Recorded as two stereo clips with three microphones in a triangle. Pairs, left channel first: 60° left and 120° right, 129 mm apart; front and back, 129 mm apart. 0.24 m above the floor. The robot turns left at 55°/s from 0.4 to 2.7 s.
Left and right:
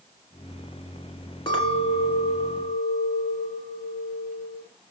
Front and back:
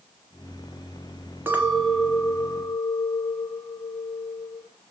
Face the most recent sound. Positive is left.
turn(degrees=40)